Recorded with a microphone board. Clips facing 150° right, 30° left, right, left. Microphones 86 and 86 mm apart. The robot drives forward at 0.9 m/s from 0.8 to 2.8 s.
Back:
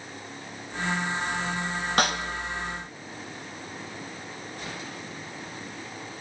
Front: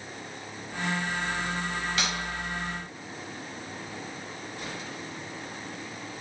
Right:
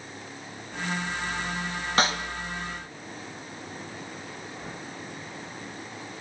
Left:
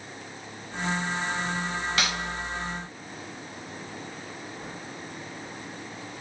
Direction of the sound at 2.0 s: 130° right.